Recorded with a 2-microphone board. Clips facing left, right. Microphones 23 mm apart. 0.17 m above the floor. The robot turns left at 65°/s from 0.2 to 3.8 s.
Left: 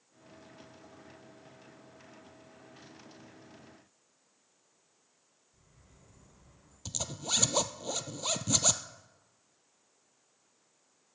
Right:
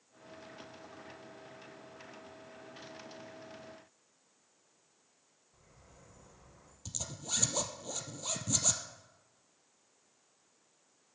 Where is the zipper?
30° left (ahead or behind), 0.9 m.